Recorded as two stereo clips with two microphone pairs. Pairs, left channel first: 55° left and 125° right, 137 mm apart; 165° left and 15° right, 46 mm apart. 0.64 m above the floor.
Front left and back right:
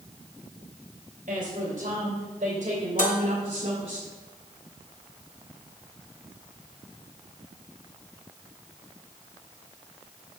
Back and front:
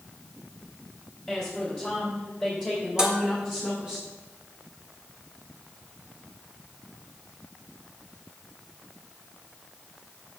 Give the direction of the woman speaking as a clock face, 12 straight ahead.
3 o'clock.